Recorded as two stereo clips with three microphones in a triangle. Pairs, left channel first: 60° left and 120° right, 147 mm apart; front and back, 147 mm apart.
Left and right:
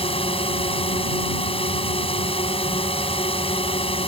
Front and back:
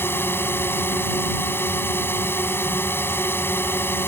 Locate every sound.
0.0 s a drone: 65° left